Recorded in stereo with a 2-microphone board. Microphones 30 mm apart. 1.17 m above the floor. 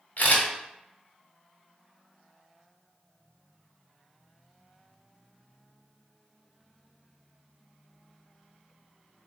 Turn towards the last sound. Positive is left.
turn(degrees=60)  # may be behind; listen again after turning